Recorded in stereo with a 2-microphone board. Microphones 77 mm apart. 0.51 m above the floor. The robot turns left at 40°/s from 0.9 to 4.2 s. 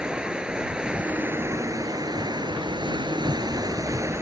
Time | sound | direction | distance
0.0 | running water | 10° right | ?